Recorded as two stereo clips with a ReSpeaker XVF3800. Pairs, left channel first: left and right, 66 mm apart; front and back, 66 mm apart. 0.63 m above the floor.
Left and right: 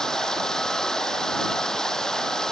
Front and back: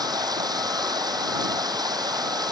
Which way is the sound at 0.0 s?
170° left.